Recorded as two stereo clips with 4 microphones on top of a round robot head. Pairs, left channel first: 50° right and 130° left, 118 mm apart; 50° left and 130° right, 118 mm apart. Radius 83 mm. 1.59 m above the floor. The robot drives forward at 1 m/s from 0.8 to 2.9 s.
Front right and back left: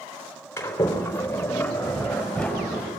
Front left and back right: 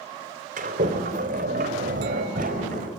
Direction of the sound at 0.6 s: 120° right.